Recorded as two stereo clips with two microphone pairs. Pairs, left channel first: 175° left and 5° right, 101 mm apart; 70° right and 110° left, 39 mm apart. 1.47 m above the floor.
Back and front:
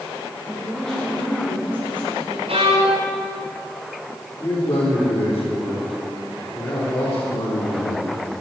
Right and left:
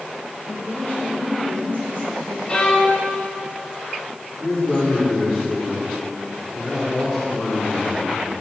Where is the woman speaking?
100° right, 8 m; by 2.4 s 110° right, 9 m.